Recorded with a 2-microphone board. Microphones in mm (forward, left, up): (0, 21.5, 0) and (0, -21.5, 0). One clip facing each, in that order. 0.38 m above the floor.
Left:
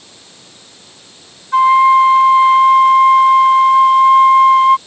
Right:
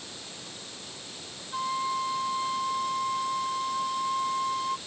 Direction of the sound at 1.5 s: 75° left (ahead or behind).